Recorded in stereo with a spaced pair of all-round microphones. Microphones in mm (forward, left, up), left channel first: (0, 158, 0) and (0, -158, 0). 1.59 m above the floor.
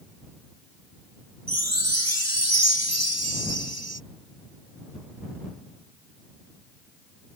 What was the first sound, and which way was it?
A chime, 55° right (ahead or behind).